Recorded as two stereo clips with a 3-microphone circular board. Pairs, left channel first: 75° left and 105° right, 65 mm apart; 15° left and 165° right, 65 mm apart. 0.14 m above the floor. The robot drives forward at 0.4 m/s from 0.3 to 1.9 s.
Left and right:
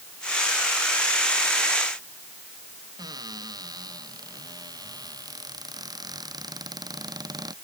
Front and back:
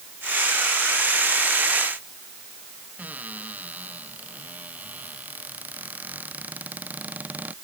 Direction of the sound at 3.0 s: 100° right.